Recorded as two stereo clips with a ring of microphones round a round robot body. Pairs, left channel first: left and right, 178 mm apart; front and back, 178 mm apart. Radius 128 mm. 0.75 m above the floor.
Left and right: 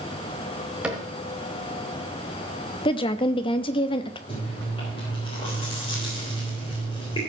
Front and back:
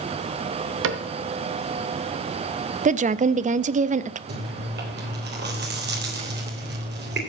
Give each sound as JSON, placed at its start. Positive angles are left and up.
{"t": 0.8, "sound": "a cupboard door", "azimuth_deg": -175, "distance_m": 1.0}
{"t": 2.9, "sound": "a woman speaking", "azimuth_deg": 145, "distance_m": 0.6}
{"t": 4.3, "sound": "chewing", "azimuth_deg": 160, "distance_m": 3.5}